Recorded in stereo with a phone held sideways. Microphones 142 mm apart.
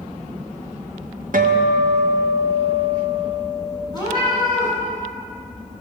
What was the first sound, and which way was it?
A guitar, 75° right (ahead or behind).